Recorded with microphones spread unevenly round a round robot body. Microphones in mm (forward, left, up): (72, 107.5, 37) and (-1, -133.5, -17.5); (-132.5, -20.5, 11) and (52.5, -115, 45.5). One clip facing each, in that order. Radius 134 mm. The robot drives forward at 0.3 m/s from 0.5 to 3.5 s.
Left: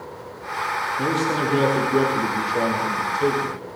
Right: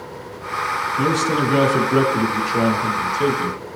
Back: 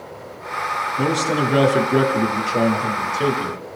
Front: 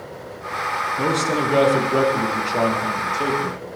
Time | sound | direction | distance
1.0 | a man speaking | 120° right | 6 m